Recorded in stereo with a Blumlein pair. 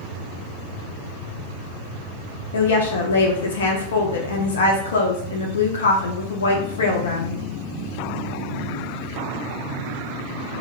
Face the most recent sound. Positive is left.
turn(degrees=65)